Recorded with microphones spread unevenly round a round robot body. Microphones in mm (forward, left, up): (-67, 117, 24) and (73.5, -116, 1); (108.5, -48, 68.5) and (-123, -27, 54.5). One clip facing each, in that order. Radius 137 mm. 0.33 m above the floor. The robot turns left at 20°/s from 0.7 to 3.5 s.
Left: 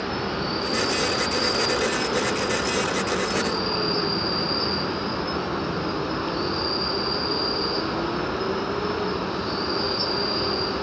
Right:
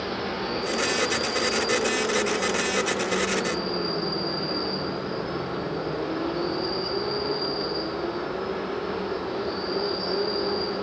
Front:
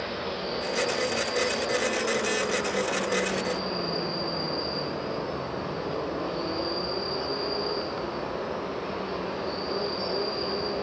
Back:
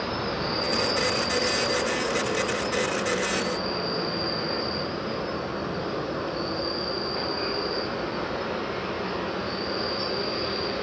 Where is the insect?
155° left, 0.8 m; by 10.8 s 100° left, 0.8 m.